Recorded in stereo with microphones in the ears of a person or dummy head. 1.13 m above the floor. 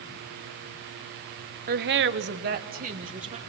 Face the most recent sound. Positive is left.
turn(degrees=-35)  # may be behind; listen again after turning